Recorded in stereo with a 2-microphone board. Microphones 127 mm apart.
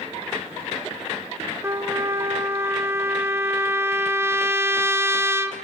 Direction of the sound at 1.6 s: 20° right (ahead or behind).